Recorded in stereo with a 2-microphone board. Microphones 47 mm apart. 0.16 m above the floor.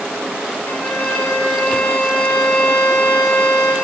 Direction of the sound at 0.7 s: 60° left (ahead or behind).